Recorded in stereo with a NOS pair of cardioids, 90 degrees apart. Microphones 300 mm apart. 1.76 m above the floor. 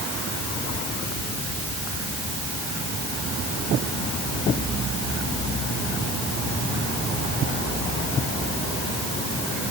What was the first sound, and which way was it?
Only background noise.